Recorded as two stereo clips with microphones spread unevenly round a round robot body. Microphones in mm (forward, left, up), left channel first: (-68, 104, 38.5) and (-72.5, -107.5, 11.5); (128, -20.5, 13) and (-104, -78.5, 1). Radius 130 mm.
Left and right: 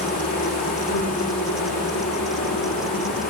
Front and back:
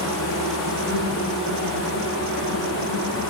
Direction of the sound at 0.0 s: 60° left.